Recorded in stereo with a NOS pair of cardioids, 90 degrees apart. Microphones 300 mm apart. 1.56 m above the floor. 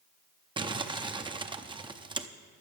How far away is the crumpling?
About 0.6 m.